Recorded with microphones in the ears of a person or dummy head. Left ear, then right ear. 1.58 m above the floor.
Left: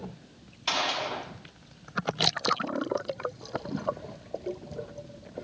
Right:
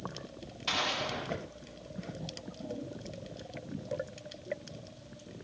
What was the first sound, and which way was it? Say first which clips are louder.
A gunshot: left 4 dB; 25° left (ahead or behind).